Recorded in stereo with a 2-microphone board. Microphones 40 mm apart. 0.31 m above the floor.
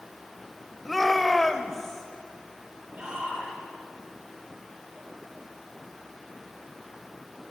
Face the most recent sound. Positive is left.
turn(degrees=-20)  # may be behind; listen again after turning